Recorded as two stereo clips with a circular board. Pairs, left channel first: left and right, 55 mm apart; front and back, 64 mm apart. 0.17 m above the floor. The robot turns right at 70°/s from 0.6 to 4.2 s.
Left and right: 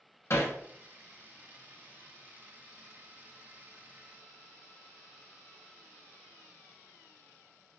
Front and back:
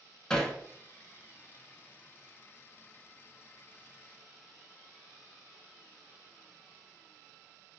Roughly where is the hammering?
Left.